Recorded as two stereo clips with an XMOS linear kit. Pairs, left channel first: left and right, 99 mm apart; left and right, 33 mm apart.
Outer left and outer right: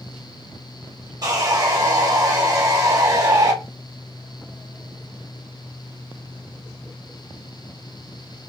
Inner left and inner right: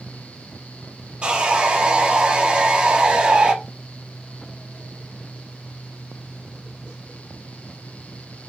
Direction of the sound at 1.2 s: 40° right (ahead or behind).